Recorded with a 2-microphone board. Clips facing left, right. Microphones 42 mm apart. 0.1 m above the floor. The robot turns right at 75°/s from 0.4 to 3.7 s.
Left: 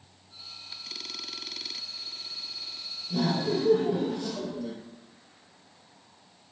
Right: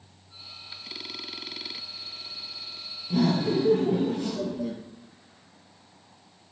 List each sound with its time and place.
3.1 s laughter: 115° right, 1.7 m; by 4.8 s 70° right, 1.7 m